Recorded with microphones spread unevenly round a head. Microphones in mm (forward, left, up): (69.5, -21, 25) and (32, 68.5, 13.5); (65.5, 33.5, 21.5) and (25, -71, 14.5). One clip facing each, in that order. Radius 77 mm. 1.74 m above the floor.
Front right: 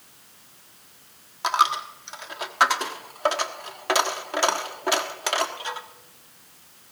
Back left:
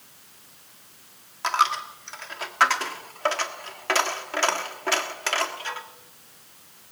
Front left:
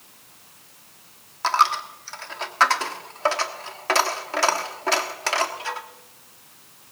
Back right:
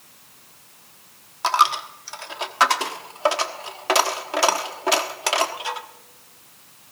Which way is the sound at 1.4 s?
55° right.